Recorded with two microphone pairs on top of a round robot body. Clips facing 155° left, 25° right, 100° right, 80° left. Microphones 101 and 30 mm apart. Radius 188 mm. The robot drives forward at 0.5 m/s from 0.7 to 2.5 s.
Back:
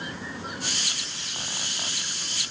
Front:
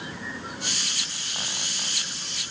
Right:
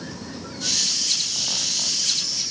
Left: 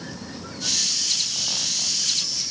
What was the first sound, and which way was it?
Only background noise.